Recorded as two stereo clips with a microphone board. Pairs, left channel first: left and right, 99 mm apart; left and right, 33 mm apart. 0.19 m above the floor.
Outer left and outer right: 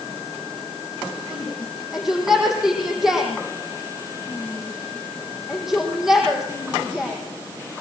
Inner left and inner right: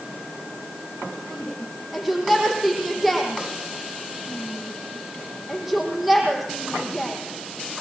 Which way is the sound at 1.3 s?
5° right (ahead or behind).